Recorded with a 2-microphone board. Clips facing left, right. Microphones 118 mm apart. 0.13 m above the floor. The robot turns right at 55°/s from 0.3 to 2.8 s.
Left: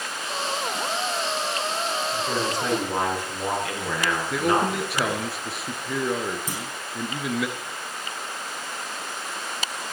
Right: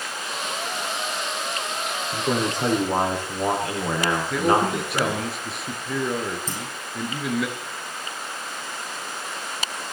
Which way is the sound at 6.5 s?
15° left (ahead or behind).